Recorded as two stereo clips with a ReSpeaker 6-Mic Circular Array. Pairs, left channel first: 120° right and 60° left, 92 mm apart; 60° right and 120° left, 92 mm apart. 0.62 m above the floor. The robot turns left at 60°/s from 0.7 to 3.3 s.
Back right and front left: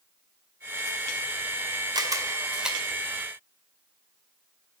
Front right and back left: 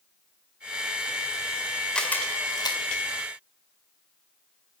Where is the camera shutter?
20° left, 2 m; by 2.8 s 30° right, 2 m.